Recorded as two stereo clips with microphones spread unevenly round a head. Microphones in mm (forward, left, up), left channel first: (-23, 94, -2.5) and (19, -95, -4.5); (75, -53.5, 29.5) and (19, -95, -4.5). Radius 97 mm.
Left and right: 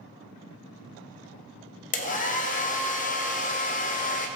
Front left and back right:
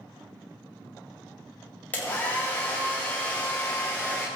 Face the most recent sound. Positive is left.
turn(degrees=70)